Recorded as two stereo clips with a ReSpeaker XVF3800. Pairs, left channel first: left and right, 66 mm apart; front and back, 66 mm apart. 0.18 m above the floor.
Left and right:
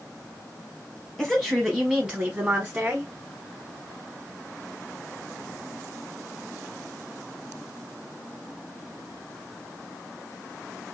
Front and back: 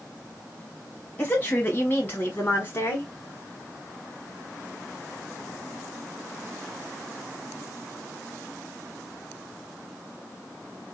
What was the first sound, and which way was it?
A woman speaking, 15° left.